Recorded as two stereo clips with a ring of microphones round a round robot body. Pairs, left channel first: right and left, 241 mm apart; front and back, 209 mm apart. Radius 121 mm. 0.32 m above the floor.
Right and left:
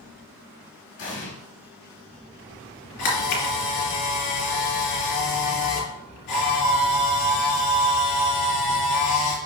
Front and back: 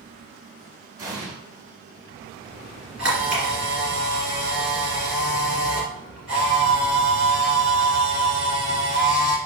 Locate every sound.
1.0 s an explosion: 105° right, 2.5 m
3.0 s a camera shutter: 95° right, 3 m